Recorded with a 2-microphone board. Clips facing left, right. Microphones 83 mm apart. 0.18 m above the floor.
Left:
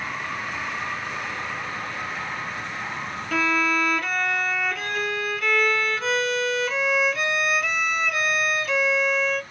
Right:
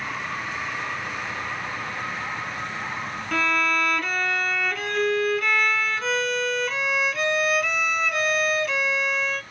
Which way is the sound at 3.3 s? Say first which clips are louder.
Left 1 dB; centre (ahead or behind).